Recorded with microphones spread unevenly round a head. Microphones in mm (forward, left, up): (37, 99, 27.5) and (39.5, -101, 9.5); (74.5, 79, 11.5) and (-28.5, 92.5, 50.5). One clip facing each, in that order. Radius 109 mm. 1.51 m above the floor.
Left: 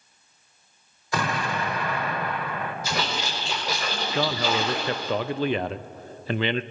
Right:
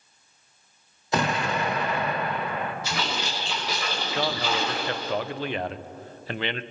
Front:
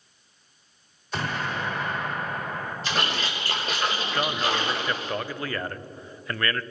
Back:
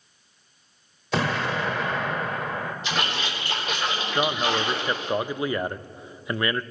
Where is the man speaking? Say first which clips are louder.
Left 3 dB, back 3 dB; 90° left, 0.5 m.